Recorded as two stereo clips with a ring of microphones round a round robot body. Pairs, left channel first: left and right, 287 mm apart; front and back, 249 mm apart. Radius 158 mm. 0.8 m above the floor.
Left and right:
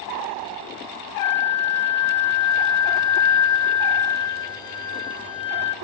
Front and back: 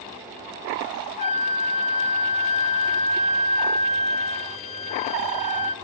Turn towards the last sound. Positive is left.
turn(degrees=35)